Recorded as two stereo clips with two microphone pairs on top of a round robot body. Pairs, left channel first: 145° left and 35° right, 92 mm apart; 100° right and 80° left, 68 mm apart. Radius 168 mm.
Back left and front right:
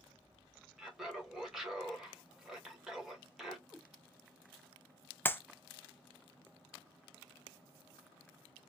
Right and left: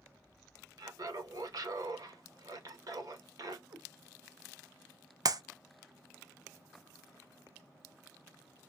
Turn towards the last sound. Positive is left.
turn(degrees=80)